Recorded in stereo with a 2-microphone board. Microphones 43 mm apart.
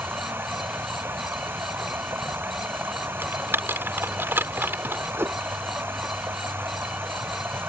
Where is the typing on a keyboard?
60° right (ahead or behind).